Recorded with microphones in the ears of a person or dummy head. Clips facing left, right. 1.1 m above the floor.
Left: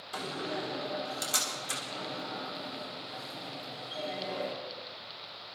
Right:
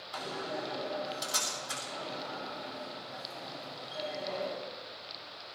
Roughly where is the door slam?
Left.